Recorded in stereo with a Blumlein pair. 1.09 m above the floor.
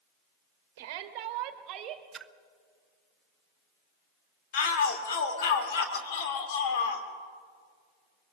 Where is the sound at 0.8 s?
50° right, 1.4 m; by 2.0 s 30° right, 2 m.